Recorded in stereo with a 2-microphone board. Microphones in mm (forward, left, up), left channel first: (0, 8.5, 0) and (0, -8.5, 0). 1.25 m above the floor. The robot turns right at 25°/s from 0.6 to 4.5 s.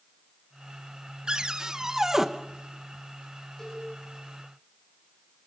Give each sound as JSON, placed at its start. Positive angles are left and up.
{"t": 1.3, "sound": "a cupboard door", "side_deg": -50, "distance_m": 1.0}
{"t": 3.6, "sound": "a cowbell", "side_deg": 35, "distance_m": 8.5}